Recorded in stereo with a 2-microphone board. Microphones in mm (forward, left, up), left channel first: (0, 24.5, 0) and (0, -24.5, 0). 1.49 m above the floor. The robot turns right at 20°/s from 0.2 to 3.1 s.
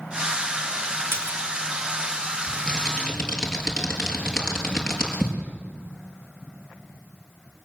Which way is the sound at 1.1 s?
55° right (ahead or behind).